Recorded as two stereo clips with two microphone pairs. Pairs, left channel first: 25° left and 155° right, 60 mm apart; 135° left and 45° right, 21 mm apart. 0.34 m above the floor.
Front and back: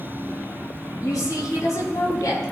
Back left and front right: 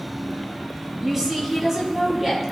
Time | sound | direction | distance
1.0 | a woman speaking | 25° left | 6 m